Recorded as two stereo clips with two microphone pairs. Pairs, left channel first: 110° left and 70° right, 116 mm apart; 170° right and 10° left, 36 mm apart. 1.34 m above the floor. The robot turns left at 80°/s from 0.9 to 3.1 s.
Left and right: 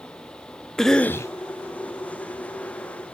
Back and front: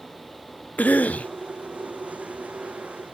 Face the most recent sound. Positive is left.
turn(degrees=15)